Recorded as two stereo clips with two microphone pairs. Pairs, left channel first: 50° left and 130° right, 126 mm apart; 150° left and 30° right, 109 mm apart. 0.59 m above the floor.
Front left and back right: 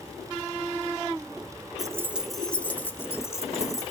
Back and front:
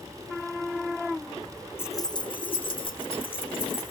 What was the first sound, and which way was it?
Keys jangling, 165° right.